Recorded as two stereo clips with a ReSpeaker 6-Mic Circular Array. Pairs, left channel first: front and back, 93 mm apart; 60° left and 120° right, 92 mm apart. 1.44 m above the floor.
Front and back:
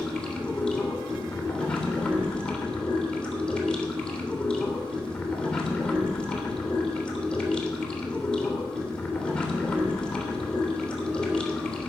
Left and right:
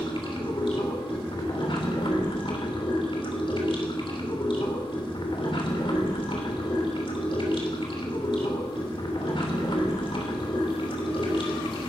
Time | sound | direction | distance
0.0 | running water | 80° left | 3 m